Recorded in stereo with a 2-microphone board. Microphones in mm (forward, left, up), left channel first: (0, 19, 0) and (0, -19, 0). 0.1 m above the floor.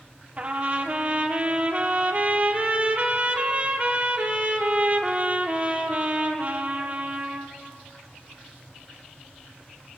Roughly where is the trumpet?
Right.